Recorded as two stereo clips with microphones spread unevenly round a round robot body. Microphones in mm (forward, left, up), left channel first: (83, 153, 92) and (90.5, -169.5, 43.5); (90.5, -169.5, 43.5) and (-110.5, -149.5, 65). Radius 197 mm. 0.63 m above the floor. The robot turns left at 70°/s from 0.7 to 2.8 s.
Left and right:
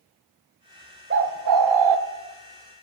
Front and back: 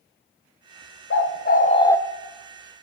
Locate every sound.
1.1 s a bird: 25° right, 0.6 m; by 2.0 s 90° right, 0.6 m